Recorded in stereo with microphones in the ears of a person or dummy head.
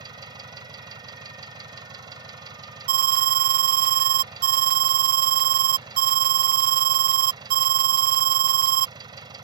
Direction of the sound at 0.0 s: 25° right (ahead or behind).